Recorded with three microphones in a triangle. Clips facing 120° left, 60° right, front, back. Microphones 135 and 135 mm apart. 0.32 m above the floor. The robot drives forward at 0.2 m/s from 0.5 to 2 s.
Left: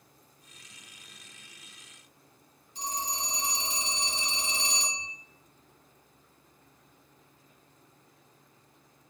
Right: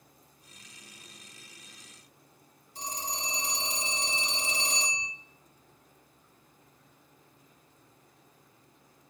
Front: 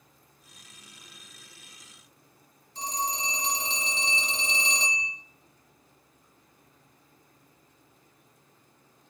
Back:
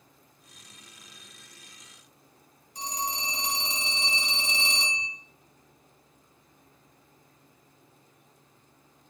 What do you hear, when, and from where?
2.8 s a phone ringing: 105° right, 1.8 m